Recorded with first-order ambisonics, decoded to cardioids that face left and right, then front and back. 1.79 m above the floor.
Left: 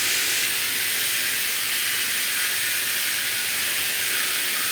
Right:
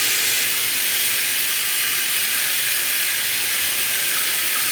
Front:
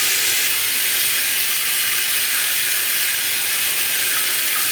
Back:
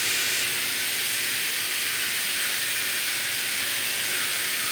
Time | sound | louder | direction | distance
0.0 | running water | right 2 dB, front 6 dB | 25° right | 6 m